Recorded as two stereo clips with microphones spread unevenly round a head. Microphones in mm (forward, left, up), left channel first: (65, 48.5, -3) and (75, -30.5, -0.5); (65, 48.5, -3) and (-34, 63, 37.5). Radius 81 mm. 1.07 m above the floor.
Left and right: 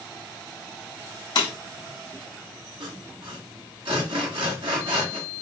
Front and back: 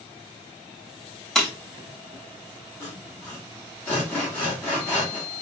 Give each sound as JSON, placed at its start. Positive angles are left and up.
{"t": 1.4, "sound": "breaking glass", "azimuth_deg": 85, "distance_m": 1.2}
{"t": 2.8, "sound": "sawing", "azimuth_deg": -95, "distance_m": 1.8}